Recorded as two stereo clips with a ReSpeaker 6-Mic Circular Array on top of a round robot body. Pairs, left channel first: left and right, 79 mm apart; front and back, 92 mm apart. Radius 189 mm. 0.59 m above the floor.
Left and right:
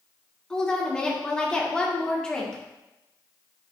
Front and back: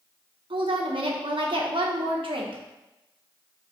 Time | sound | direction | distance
0.5 | a woman speaking | 170° left | 1.7 m